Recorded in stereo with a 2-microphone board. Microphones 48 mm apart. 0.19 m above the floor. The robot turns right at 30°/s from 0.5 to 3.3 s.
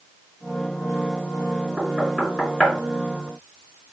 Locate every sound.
1.8 s knocking: centre (ahead or behind), 2 m; by 3.9 s 35° left (ahead or behind), 2 m